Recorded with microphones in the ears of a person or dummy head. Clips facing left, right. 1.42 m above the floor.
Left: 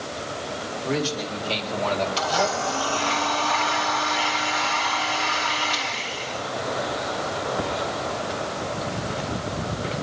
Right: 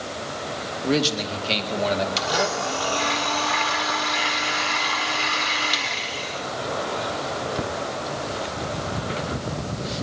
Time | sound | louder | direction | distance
0.8 | a man speaking | right 4 dB | 55° right (ahead or behind) | 2 m
2.2 | a blender | left 1 dB | 25° right (ahead or behind) | 1.7 m